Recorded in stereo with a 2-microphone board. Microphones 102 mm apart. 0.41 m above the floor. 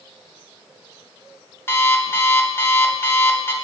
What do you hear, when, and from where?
1.7 s an alarm clock: 25° left (ahead or behind), 0.6 m